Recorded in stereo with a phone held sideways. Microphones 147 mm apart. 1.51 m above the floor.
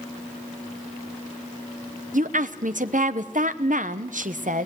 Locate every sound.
2.1 s a woman speaking: 70° right (ahead or behind), 1.1 m